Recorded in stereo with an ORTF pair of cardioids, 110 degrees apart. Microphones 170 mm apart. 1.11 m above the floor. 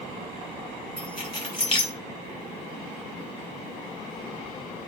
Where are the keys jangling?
30° left, 5.5 m.